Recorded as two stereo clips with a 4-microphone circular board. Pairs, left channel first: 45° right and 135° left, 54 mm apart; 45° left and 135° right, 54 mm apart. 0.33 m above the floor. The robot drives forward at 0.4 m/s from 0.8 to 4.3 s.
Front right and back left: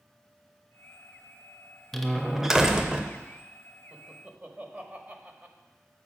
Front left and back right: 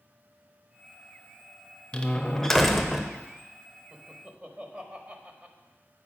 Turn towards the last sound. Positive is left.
turn(degrees=175)